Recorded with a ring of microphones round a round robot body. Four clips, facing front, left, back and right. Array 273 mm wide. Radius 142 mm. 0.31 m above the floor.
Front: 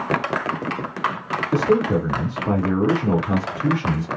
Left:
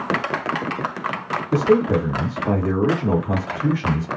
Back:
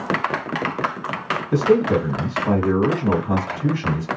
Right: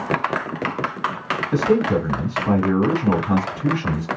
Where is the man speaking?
140° left, 2 m.